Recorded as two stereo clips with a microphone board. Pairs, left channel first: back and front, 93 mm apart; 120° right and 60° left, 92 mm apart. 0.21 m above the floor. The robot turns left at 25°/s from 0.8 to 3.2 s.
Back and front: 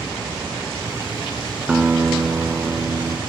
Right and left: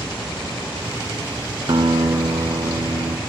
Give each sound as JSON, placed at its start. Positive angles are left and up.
{"t": 1.7, "sound": "a guitar", "azimuth_deg": 80, "distance_m": 1.3}